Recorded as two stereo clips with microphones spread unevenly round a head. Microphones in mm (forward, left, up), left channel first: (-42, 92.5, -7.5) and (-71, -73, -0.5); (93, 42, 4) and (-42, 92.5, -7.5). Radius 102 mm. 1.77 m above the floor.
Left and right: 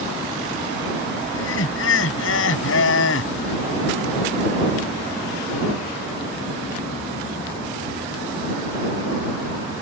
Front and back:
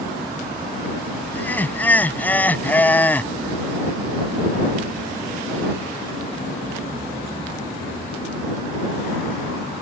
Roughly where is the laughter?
Ahead left.